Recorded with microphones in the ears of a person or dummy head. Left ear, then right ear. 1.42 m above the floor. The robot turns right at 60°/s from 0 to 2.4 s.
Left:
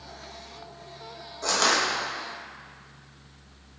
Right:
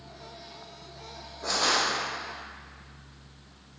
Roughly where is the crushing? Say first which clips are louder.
Left 2 dB; left.